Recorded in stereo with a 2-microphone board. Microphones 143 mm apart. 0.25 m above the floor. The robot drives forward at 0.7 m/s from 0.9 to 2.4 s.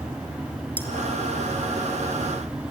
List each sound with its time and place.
0.8 s cutlery clinking: 10° left (ahead or behind), 2.5 m